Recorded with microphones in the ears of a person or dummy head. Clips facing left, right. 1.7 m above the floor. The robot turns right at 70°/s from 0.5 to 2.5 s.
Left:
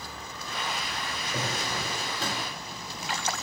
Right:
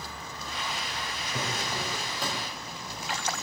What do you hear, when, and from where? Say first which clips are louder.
1.3 s a drawer: left 1 dB; 130° left, 3.5 m; by 2.5 s 150° right, 3.5 m